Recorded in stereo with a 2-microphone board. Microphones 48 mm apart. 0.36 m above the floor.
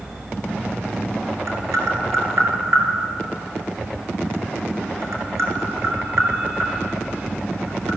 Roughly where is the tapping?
Right.